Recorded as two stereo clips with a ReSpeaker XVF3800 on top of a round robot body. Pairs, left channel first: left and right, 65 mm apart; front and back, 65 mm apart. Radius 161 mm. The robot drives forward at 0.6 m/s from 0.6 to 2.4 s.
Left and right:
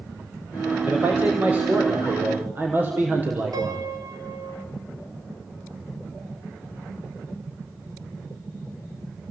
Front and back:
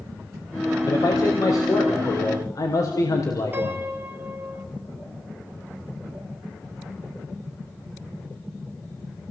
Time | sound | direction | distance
0.8 | a man speaking | 25° right | 6 m
3.5 | a piano | 120° right | 3.5 m